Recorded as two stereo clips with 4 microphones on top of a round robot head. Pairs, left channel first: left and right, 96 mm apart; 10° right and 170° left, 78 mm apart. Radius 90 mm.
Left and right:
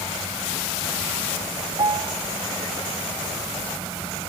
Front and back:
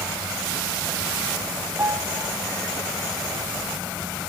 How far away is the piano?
About 0.6 m.